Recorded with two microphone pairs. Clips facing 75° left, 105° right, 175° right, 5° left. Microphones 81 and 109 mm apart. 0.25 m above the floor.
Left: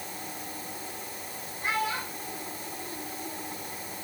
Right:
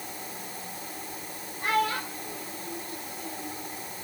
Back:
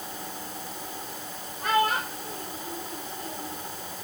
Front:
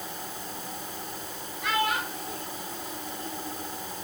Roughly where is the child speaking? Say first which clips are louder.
Right 4 dB, back 4 dB; behind right.